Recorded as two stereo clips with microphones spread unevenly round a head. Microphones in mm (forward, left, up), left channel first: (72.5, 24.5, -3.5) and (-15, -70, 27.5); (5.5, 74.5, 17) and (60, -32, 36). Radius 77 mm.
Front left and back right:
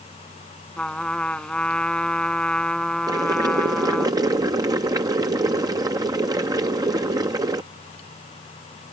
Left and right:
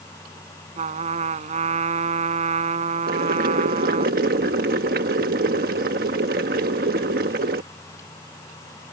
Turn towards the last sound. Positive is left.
turn(degrees=-70)